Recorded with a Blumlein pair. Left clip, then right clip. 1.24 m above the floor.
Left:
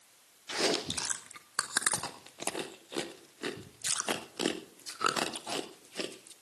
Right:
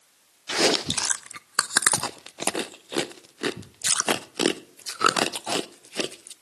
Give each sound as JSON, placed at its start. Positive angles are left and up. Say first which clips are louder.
{"t": 0.5, "sound": "chewing", "louder": "right 9 dB", "azimuth_deg": -25, "distance_m": 0.5}